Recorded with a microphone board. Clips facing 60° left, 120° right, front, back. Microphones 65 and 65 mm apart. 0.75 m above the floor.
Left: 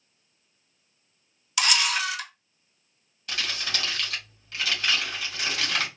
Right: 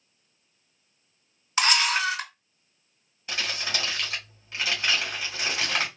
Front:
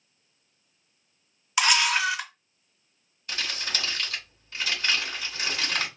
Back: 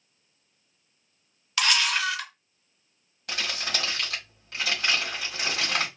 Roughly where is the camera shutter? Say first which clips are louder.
Right 2 dB, front 2 dB; right.